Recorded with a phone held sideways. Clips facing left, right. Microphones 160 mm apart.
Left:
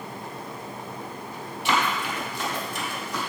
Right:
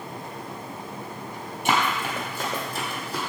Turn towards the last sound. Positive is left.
turn(degrees=-30)  # may be behind; listen again after turning